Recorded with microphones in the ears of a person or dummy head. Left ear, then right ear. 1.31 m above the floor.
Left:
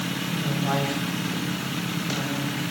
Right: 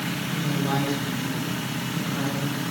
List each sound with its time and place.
0.3 s a woman speaking: 30° left (ahead or behind), 8 m; by 2.6 s 25° left (ahead or behind), 10 m